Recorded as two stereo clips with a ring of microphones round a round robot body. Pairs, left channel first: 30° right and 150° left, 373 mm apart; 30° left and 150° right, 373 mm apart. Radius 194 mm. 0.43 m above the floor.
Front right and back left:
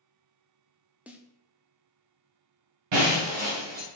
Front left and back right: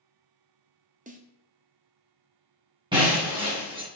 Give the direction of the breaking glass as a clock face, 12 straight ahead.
8 o'clock.